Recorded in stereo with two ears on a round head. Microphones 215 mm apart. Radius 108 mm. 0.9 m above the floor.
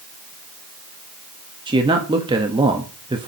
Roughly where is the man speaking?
Right.